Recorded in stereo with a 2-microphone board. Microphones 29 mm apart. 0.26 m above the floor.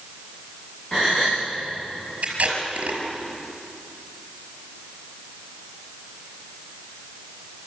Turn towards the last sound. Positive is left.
turn(degrees=-55)  # may be behind; listen again after turning